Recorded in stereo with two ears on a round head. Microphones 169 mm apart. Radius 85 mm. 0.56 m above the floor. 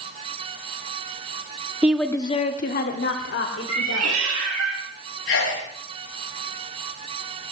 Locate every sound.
1.8 s a woman speaking: 10° right (ahead or behind), 1.1 m; by 4.2 s 75° left (ahead or behind), 3 m
3.7 s a cat meowing: 75° right (ahead or behind), 5 m
5.3 s a sneeze: 75° left (ahead or behind), 4.5 m